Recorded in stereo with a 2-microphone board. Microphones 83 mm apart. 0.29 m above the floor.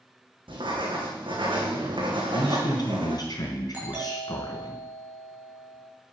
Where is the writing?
85° right, 4 m.